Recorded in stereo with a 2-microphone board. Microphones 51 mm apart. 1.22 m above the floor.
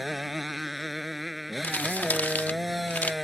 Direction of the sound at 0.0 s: Centre (ahead or behind).